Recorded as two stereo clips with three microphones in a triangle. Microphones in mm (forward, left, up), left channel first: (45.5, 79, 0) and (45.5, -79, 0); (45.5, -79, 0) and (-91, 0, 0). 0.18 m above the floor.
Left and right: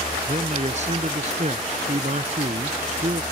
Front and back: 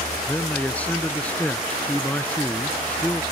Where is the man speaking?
110° right.